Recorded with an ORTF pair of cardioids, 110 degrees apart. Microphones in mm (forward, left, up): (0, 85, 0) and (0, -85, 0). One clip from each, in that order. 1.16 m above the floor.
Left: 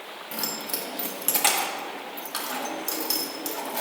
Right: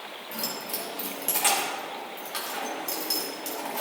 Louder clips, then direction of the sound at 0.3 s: Left 2 dB; 25° left.